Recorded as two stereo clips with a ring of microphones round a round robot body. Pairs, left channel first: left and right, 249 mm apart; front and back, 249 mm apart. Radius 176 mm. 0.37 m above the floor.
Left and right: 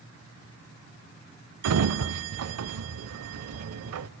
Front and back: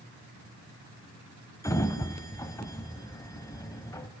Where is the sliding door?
80° right, 0.9 m.